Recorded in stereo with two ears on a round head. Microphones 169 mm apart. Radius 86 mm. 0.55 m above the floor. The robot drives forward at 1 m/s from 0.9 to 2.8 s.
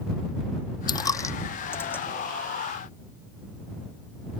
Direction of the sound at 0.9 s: 25° left (ahead or behind).